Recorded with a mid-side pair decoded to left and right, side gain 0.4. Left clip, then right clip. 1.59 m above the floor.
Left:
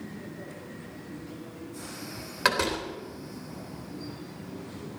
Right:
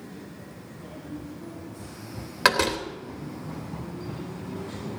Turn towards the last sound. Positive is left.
turn(degrees=-35)